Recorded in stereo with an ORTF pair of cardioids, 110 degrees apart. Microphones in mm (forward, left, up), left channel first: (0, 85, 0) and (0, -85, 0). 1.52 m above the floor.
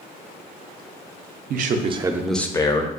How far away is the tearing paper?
No tearing paper in this recording.